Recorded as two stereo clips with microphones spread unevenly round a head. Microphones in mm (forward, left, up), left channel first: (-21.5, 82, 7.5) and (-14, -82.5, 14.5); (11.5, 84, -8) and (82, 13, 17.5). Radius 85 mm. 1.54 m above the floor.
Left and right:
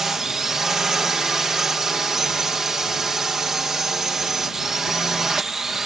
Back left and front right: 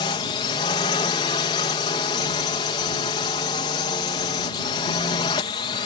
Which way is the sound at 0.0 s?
175° right.